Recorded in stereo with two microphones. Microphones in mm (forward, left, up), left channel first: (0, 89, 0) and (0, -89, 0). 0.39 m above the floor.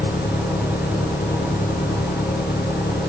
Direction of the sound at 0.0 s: 60° left (ahead or behind).